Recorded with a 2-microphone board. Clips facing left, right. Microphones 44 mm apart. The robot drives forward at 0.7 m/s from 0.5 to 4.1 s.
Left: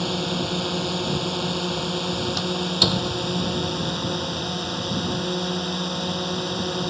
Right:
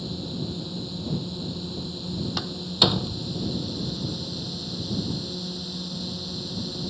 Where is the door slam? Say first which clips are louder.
Right 1 dB; 10° right (ahead or behind).